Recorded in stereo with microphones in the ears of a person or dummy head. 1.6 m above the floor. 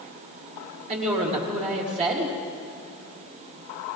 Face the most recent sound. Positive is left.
turn(degrees=-35)  # may be behind; listen again after turning